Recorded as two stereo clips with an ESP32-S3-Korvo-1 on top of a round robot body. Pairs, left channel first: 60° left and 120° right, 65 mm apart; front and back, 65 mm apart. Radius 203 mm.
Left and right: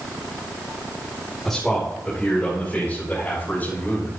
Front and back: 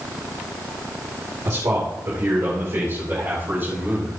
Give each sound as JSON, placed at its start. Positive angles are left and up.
{"t": 1.4, "sound": "a man speaking", "azimuth_deg": 145, "distance_m": 3.0}